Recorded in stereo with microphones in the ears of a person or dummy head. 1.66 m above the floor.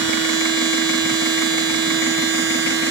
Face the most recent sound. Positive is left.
turn(degrees=-75)  # may be behind; listen again after turning